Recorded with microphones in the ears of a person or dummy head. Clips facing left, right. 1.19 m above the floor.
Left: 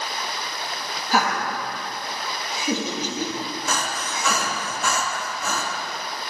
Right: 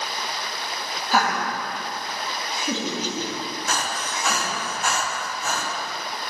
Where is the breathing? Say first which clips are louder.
Right 1 dB; 85° left, 1.4 m.